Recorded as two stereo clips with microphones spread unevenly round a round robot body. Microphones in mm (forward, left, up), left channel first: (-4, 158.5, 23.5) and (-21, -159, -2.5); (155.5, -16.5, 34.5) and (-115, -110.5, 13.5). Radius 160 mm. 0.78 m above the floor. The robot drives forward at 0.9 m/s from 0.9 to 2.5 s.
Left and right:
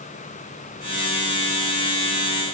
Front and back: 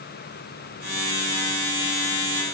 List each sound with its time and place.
Only background noise.